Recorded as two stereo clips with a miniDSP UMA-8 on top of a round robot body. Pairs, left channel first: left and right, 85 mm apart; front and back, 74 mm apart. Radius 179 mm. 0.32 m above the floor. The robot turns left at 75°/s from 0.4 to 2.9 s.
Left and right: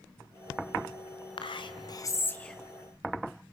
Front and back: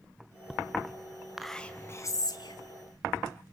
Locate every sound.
1.4 s whispering: 95° left, 2.5 m; by 2.6 s 5° left, 2.5 m